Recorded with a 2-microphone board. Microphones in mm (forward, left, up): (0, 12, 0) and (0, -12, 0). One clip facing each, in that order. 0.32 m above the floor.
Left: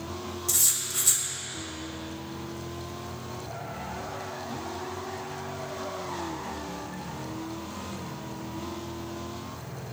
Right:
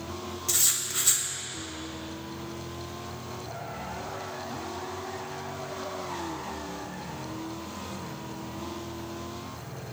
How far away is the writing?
About 1.4 m.